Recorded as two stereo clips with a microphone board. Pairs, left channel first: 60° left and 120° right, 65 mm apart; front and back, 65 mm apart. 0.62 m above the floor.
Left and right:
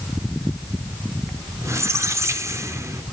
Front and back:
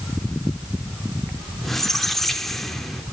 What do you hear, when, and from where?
1.6 s a squeak: 85° right, 1.2 m